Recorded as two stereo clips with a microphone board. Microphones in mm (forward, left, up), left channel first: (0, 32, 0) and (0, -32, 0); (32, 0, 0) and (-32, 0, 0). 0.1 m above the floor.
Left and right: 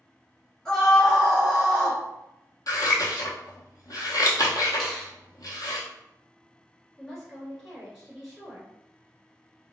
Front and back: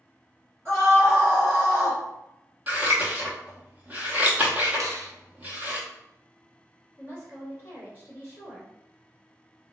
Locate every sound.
0.7 s a scream: 170° left, 1.9 m; by 2.0 s 135° right, 1.7 m
2.7 s scissors: 115° left, 0.7 m
4.8 s a finger snap: 175° left, 1.3 m
7.0 s a woman speaking: straight behind, 1.6 m